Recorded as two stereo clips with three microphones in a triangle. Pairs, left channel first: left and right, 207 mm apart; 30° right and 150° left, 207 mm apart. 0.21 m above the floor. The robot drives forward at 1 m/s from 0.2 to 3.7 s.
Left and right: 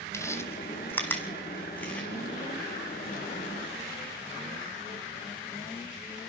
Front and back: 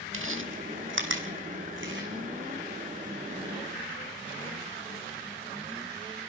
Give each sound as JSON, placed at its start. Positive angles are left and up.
{"t": 0.1, "sound": "chewing", "azimuth_deg": 165, "distance_m": 1.6}